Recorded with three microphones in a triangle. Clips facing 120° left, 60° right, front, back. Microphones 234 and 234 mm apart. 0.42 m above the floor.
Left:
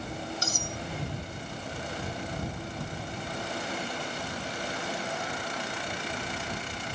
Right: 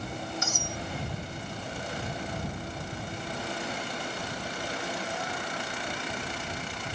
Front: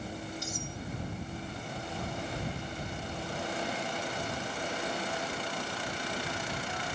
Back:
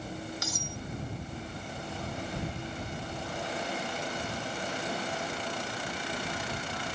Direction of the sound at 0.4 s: 175° left.